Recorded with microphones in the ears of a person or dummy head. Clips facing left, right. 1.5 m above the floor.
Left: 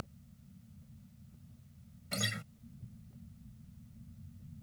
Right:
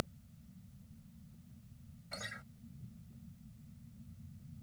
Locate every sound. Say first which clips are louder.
2.1 s a guitar: left 10 dB; 65° left (ahead or behind)